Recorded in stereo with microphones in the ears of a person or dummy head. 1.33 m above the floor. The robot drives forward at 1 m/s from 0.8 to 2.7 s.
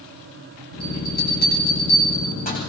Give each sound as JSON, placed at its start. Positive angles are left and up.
{"t": 0.8, "sound": "a bell", "side_deg": 60, "distance_m": 8.5}